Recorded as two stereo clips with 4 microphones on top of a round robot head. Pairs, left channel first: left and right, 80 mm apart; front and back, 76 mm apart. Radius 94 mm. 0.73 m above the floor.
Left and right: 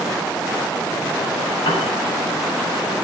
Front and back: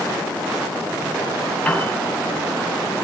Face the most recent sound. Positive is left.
turn(degrees=70)